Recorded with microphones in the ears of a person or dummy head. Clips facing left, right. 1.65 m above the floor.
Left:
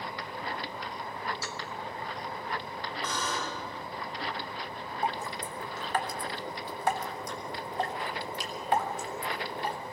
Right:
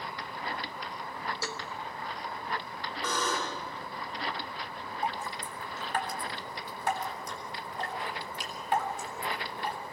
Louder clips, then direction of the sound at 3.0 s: Right 3 dB; 45° right (ahead or behind).